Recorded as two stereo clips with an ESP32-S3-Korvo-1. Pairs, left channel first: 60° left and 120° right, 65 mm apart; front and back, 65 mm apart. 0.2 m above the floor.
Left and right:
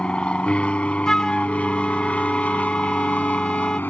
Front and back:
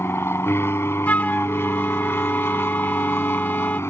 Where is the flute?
5° right.